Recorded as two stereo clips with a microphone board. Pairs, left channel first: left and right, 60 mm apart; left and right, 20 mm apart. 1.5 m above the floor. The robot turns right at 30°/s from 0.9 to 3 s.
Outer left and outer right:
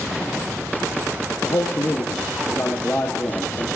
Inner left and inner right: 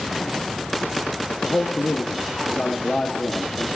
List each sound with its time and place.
1.4 s a man speaking: 95° left, 0.8 m; by 3.7 s 140° left, 0.8 m